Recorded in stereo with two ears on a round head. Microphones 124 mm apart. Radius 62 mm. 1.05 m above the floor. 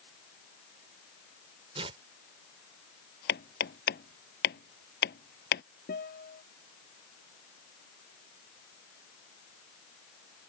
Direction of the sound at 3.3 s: 85° left.